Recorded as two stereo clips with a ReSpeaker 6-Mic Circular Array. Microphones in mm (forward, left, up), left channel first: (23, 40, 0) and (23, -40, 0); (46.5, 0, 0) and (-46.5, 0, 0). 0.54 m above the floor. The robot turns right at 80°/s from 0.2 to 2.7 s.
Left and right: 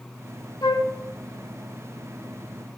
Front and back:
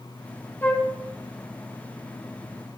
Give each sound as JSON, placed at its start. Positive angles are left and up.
{"t": 0.6, "sound": "a flute", "azimuth_deg": 65, "distance_m": 1.3}